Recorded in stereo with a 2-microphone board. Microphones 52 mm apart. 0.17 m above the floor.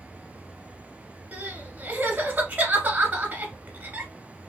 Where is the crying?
35° right (ahead or behind), 1.2 m.